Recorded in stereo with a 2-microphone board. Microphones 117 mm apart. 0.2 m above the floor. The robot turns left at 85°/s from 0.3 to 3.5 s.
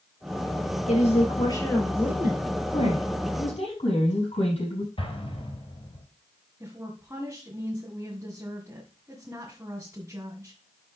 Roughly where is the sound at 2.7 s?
Behind left.